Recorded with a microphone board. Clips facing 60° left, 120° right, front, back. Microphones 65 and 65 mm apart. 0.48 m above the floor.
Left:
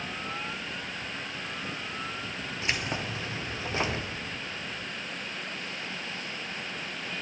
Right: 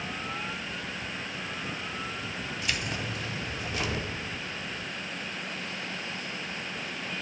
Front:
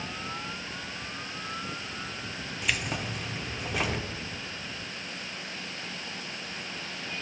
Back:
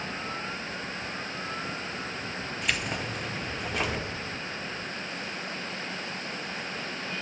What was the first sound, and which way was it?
Keys jangling, 90° left.